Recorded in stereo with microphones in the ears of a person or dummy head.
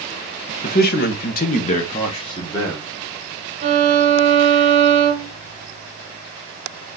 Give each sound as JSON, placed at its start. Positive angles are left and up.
{"t": 0.6, "sound": "a man speaking", "side_deg": 40, "distance_m": 0.8}
{"t": 3.6, "sound": "a violin", "side_deg": -40, "distance_m": 1.3}